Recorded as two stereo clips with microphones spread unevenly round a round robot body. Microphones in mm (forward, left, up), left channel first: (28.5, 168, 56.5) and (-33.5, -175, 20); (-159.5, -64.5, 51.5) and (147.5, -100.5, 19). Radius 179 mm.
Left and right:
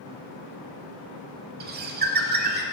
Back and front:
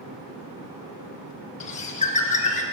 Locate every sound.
1.6 s a bird: 155° right, 0.6 m